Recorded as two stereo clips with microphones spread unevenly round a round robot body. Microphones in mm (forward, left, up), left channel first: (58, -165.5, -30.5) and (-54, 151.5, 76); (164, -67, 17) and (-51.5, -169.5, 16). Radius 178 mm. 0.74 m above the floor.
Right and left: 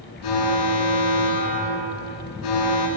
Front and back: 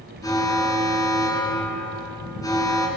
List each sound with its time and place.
0.2 s an alarm: 50° right, 8.5 m